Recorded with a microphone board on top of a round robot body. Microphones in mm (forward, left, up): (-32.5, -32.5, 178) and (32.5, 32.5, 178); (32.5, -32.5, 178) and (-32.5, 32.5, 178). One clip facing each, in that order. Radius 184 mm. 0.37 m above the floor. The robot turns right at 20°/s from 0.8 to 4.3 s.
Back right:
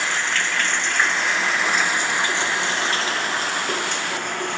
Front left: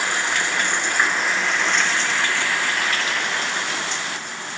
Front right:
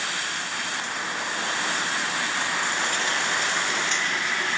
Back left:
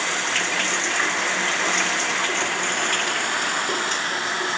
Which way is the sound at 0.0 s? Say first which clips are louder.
Front left 1 dB, back left 6 dB; 125° left.